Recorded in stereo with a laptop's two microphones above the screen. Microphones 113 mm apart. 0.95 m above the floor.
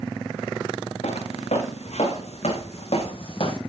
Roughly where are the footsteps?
Left.